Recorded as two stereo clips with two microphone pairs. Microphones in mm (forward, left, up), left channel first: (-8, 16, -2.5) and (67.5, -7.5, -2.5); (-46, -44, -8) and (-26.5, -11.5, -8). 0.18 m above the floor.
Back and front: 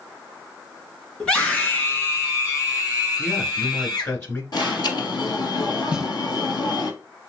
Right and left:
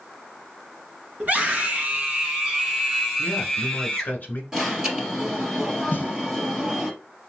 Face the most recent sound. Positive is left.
turn(degrees=-100)